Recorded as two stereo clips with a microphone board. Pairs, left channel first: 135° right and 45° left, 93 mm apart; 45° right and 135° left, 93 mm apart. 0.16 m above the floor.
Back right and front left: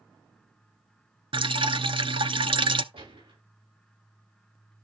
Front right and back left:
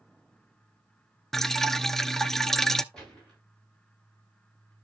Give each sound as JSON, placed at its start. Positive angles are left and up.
{"t": 1.3, "sound": "dripping", "azimuth_deg": 40, "distance_m": 0.5}
{"t": 2.9, "sound": "a gunshot", "azimuth_deg": 40, "distance_m": 8.5}